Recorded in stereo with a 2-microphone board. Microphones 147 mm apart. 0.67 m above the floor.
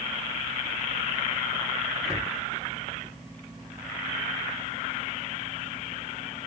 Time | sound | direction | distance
2.0 | a cupboard door | 5° right (ahead or behind) | 1.3 m